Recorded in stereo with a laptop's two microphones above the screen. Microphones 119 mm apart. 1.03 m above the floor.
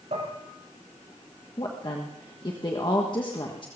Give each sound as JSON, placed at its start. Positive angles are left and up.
{"t": 0.1, "sound": "dishes clattering", "side_deg": -65, "distance_m": 4.0}
{"t": 1.6, "sound": "a woman speaking", "side_deg": 40, "distance_m": 1.4}